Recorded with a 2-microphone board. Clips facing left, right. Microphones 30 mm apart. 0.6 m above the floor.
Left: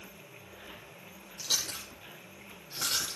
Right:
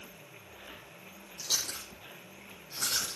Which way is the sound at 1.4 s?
20° left (ahead or behind).